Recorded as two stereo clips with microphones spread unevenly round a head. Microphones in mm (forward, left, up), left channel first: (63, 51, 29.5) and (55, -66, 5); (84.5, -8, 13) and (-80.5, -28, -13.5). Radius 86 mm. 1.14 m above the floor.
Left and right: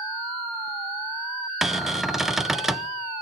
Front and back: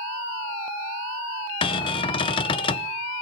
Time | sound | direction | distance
1.6 | a cupboard door | 35° right | 0.7 m